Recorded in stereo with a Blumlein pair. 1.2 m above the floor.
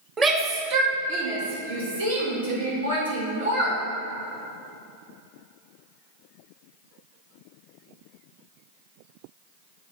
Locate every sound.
0.2 s a shout: 20° right, 2 m; by 3.8 s 80° right, 6.5 m